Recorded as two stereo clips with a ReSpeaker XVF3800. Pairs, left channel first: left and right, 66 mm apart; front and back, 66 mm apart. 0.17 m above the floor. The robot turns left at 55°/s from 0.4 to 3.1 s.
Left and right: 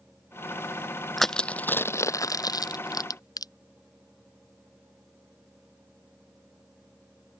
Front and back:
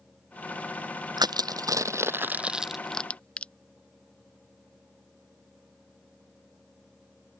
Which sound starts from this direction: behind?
Crushing, at 1.2 s.